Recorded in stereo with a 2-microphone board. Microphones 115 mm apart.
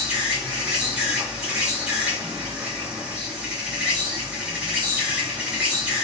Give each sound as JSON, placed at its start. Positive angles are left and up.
{"t": 0.0, "sound": "an insect", "side_deg": -10, "distance_m": 1.7}